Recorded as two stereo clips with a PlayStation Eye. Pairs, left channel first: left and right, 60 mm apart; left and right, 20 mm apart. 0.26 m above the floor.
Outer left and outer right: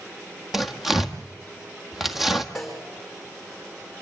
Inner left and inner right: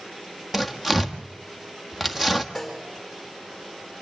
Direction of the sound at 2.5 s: Centre (ahead or behind).